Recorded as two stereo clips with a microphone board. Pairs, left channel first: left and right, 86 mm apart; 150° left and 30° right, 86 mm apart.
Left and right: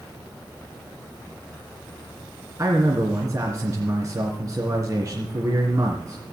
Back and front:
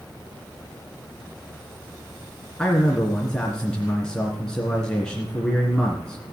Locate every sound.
2.6 s a man speaking: 130° right, 2.5 m